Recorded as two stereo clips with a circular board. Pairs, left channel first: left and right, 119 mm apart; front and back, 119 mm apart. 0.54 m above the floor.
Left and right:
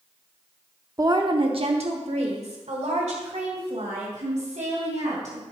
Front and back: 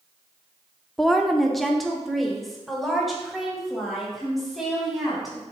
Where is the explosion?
No explosion in this recording.